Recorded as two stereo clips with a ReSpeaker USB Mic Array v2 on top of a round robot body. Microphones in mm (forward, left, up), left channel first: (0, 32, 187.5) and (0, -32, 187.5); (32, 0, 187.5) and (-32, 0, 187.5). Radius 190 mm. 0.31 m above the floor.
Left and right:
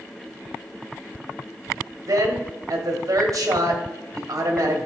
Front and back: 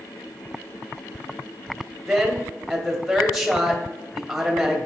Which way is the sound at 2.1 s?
90° right.